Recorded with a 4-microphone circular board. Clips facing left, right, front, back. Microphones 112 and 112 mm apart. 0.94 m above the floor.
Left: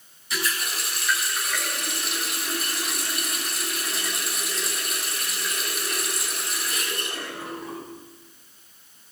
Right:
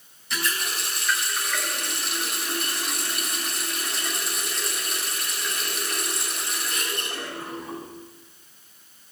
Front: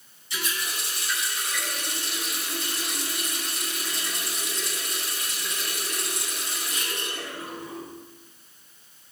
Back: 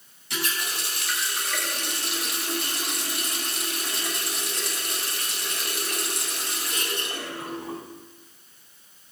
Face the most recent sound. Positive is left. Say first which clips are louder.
# even, back 2 dB
turn(degrees=180)